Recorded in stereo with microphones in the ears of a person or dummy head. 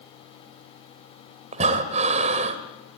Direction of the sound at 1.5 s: 40° right (ahead or behind).